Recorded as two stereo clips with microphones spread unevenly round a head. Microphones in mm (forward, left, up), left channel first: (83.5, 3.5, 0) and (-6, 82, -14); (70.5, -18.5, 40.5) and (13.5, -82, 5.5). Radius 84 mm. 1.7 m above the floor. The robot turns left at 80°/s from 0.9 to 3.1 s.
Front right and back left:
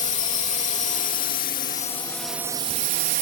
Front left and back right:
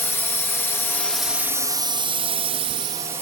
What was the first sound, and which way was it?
A drone, 20° right.